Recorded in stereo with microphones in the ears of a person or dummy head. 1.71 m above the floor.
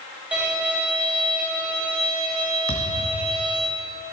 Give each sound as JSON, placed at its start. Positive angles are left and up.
{"t": 0.3, "sound": "a violin", "side_deg": -5, "distance_m": 1.8}
{"t": 2.7, "sound": "a thud", "side_deg": 45, "distance_m": 1.4}